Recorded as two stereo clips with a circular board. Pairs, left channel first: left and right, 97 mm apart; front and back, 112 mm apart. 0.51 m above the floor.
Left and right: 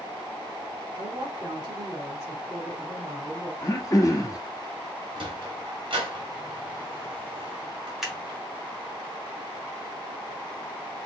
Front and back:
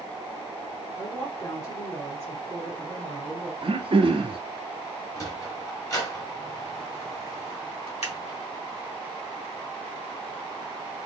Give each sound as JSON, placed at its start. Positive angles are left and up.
{"t": 0.9, "sound": "a woman speaking", "azimuth_deg": -55, "distance_m": 2.5}
{"t": 3.6, "sound": "throat clearing", "azimuth_deg": 145, "distance_m": 0.9}
{"t": 5.2, "sound": "a sliding door", "azimuth_deg": -60, "distance_m": 1.6}
{"t": 8.0, "sound": "scissors", "azimuth_deg": -5, "distance_m": 1.9}